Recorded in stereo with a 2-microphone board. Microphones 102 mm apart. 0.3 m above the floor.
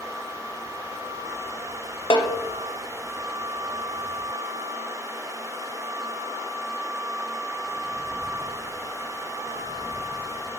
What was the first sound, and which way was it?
A snare drum, 55° left (ahead or behind).